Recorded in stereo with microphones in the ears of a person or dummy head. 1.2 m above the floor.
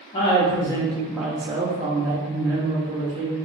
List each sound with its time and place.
0.1 s a woman speaking: 25° left (ahead or behind), 1.0 m; by 3.4 s 45° right (ahead or behind), 1.4 m